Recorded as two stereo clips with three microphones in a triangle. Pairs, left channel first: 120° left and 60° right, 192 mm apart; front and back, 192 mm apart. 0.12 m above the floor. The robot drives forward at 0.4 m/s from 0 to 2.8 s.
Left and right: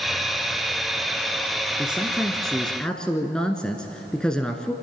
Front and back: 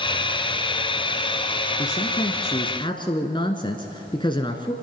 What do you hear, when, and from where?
1.8 s a man speaking: 25° left, 1.5 m; by 4.7 s 40° left, 1.3 m